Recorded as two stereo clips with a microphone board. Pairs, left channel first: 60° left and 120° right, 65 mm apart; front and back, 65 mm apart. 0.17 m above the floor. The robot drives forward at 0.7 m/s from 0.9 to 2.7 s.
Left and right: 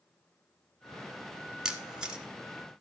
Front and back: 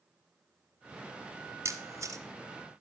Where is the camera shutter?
165° left, 1.3 m; by 2.2 s 170° left, 1.6 m.